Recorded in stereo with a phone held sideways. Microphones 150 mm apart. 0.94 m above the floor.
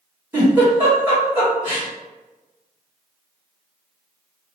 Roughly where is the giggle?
Centre.